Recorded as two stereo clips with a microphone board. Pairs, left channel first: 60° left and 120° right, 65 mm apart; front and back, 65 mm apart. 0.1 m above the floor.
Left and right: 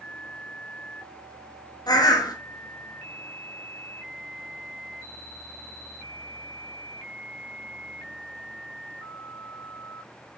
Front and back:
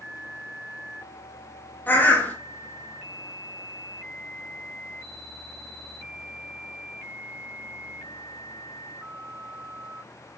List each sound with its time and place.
1.9 s a bird: 60° left, 1.4 m